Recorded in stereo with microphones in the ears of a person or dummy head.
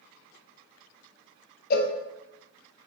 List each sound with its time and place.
1.7 s a cowbell: 50° left (ahead or behind), 0.7 m